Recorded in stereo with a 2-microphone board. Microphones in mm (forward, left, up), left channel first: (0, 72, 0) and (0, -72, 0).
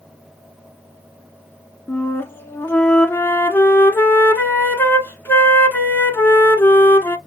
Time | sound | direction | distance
1.9 | a flute | 15° left (ahead or behind) | 0.7 m